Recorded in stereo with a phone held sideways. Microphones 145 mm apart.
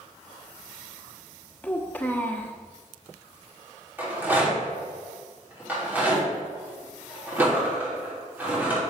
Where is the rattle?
15° right (ahead or behind), 3 m.